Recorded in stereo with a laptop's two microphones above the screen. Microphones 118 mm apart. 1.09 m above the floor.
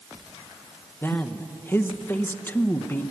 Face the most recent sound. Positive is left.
turn(degrees=15)  # may be behind; listen again after turning